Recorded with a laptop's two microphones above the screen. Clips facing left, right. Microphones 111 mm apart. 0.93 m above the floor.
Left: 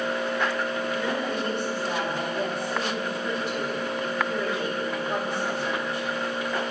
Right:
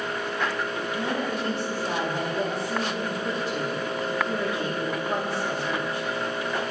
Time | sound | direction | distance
0.9 | a woman speaking | 35° right (ahead or behind) | 2 m